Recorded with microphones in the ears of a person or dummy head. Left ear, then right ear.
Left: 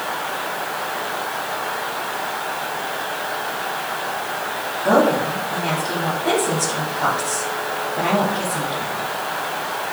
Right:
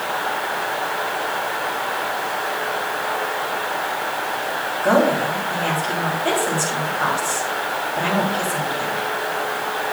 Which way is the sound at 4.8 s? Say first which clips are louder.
Left 1 dB; 60° right (ahead or behind).